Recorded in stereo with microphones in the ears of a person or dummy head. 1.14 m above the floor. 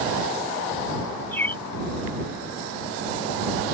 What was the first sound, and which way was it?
A bird, 10° left (ahead or behind).